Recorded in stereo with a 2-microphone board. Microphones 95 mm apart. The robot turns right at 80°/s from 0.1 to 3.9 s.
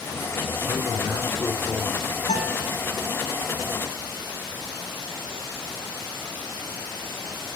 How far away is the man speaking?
About 8 m.